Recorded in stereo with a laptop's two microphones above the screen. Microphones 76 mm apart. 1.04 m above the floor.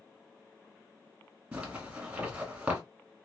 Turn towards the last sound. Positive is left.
turn(degrees=-15)  # may be behind; listen again after turning